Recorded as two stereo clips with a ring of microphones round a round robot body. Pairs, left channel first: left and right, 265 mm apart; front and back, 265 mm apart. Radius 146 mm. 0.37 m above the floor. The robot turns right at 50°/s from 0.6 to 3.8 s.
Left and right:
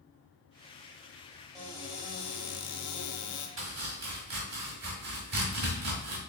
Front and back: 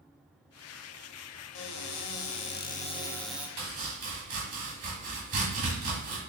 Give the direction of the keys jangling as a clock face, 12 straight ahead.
No keys jangling in this recording.